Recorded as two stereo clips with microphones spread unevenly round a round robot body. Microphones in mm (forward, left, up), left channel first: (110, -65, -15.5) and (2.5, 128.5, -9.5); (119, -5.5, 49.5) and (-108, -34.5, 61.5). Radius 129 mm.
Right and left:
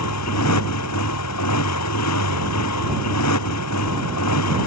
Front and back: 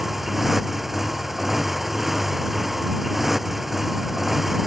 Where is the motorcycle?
85° right.